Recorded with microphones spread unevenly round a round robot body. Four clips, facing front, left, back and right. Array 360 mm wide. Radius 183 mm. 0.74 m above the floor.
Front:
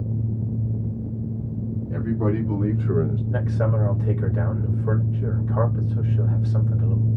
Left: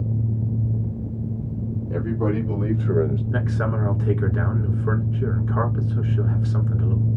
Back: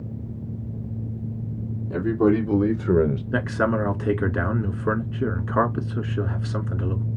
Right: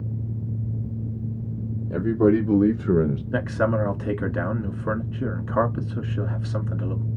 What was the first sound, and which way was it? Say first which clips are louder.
A man speaking: right 6 dB, back 6 dB; 115° right.